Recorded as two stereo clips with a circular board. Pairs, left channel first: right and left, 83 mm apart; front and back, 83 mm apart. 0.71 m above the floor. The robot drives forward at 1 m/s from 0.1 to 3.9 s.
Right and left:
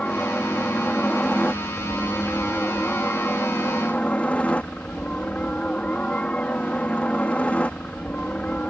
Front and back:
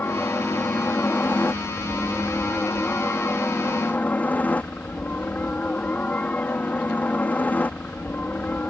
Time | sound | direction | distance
0.0 | a helicopter | 30° right | ?